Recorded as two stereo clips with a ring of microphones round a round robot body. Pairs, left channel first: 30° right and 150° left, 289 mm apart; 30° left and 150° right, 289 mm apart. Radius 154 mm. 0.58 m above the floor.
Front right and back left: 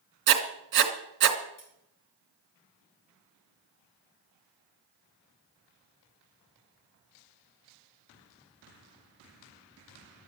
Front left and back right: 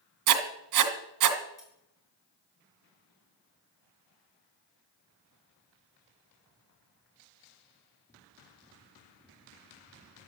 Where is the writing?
160° right, 2.5 m.